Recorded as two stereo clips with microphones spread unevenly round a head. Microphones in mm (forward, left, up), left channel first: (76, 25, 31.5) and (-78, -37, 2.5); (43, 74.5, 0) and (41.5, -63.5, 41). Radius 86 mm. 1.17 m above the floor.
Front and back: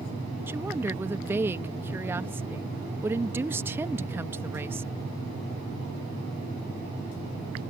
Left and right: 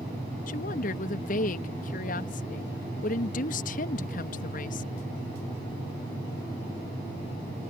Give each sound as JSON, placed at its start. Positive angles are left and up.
{"t": 0.5, "sound": "a woman speaking", "azimuth_deg": 125}